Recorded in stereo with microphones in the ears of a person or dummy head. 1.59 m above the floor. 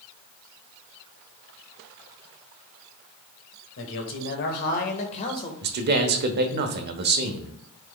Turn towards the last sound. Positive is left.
turn(degrees=-55)  # may be behind; listen again after turning